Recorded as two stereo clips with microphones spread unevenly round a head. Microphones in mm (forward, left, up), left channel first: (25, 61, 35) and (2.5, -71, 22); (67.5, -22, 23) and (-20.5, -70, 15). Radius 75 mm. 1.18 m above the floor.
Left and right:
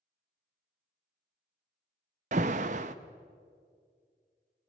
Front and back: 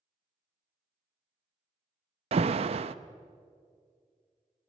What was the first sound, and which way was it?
An alarm, 140° right.